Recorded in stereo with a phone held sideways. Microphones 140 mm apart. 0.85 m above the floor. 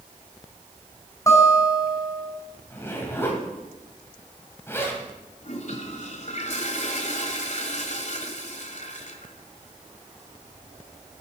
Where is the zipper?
15° left (ahead or behind), 3 m.